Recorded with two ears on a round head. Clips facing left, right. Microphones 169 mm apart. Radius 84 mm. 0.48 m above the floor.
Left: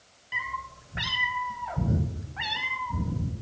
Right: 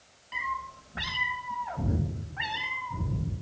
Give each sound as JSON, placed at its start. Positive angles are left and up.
{"t": 0.3, "sound": "a cat meowing", "side_deg": 10, "distance_m": 1.2}